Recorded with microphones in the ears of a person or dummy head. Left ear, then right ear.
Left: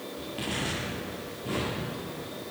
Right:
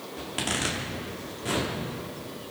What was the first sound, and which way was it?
A zipper, 50° right (ahead or behind).